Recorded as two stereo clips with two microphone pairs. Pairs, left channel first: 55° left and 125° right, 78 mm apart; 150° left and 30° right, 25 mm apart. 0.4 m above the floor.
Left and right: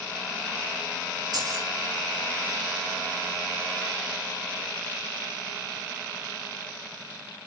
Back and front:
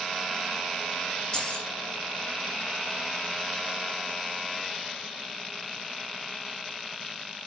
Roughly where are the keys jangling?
Behind right.